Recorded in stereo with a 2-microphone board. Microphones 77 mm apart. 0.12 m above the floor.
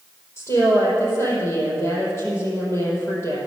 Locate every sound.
0.4 s a woman speaking: 40° left (ahead or behind), 4.5 m